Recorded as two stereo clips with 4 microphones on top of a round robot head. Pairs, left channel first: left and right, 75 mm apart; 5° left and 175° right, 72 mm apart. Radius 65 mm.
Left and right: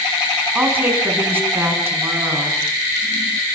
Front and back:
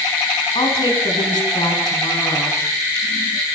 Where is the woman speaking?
25° right, 7 m; by 2.6 s 35° right, 8.5 m.